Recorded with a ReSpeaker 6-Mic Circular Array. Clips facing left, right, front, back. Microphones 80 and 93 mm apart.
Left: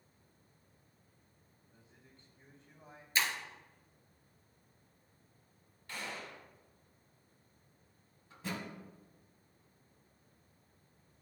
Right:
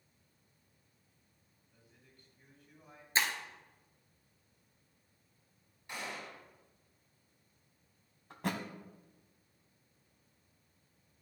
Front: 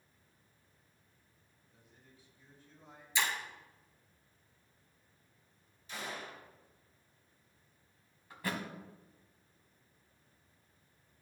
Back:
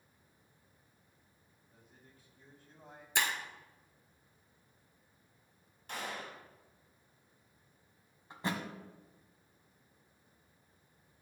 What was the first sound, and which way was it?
A man speaking, 145° left.